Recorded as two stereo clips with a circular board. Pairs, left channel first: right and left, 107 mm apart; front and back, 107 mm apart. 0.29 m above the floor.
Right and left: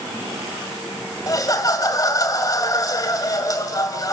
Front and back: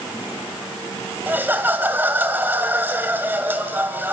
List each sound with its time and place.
1.3 s laughter: 120° right, 2.0 m